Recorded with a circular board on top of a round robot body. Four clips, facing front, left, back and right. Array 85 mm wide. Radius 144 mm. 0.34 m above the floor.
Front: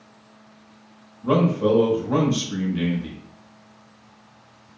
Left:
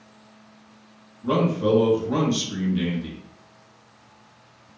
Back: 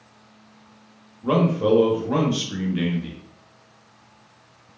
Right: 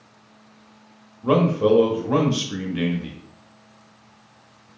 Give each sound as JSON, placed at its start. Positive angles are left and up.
{"t": 1.2, "sound": "a man speaking", "azimuth_deg": -115, "distance_m": 1.1}